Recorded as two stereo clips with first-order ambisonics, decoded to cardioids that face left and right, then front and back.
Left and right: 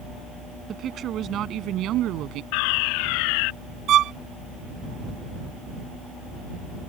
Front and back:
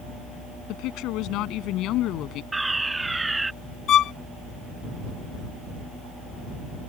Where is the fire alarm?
95° left.